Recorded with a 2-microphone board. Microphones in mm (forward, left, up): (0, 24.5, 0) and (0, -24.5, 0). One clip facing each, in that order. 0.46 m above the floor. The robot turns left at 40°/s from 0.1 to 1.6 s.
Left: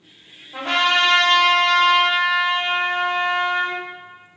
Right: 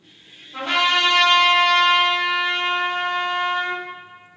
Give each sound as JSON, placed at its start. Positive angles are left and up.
{"t": 0.5, "sound": "a trumpet", "azimuth_deg": 75, "distance_m": 1.6}